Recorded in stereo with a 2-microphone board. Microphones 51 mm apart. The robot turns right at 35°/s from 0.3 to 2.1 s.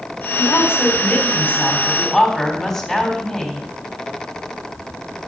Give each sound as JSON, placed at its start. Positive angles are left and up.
{"t": 0.4, "sound": "a woman speaking", "azimuth_deg": 105, "distance_m": 3.0}